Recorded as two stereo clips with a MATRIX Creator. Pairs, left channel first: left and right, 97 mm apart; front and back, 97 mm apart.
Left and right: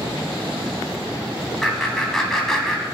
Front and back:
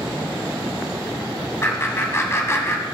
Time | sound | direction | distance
1.6 | laughter | 5° left | 1.7 m